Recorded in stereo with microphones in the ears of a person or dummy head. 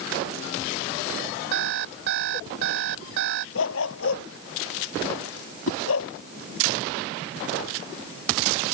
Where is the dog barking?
80° left.